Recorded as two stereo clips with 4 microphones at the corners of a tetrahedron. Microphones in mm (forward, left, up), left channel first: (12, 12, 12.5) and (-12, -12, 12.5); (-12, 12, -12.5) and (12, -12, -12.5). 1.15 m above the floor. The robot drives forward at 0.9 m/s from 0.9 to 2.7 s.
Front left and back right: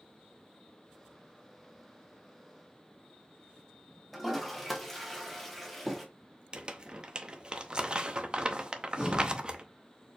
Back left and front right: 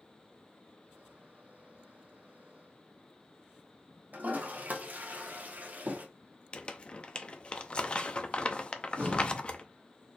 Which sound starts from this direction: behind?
Crumpling, at 6.5 s.